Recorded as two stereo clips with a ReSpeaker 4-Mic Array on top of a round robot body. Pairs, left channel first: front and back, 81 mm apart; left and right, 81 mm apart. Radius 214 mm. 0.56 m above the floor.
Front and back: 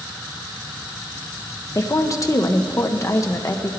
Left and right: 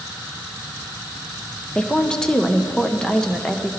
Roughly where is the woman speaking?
Ahead.